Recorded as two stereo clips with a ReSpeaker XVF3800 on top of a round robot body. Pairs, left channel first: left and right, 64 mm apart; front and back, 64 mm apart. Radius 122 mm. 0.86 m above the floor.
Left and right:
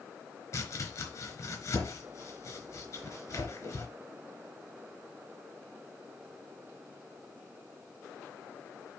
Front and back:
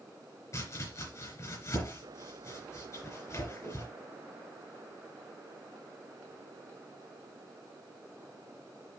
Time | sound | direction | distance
0.5 | chopping | 45° left | 4 m